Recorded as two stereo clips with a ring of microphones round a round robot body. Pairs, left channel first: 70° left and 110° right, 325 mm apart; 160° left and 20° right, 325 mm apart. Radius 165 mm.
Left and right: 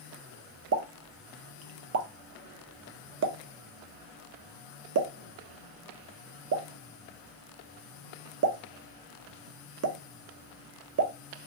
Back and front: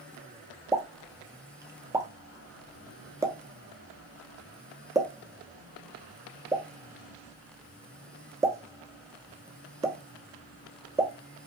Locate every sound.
0.7 s a pop: 100° right, 0.7 m